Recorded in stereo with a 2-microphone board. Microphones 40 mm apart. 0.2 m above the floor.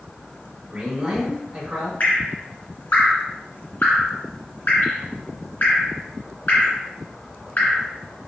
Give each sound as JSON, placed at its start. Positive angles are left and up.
{"t": 0.7, "sound": "a man speaking", "side_deg": -15, "distance_m": 1.4}
{"t": 2.0, "sound": "dripping", "side_deg": 45, "distance_m": 1.8}